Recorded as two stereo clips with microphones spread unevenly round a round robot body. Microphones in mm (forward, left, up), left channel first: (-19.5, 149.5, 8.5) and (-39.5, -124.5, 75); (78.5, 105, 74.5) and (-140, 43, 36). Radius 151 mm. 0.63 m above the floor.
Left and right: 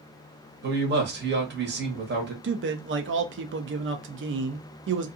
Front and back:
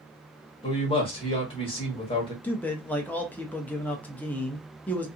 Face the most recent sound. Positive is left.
turn(degrees=-80)